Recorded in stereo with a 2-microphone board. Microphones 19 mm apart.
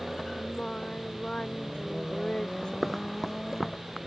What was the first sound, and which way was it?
Singing, 60° left (ahead or behind).